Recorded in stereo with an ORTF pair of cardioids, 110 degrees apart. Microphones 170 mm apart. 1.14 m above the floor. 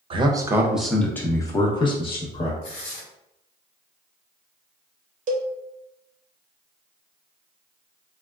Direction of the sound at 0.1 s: 35° right.